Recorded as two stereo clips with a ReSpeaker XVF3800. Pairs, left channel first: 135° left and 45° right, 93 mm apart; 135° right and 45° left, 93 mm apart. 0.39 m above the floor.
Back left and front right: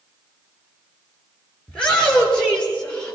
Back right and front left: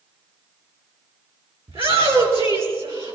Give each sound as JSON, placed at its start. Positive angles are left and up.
{"t": 1.7, "sound": "a shout", "azimuth_deg": 55, "distance_m": 7.0}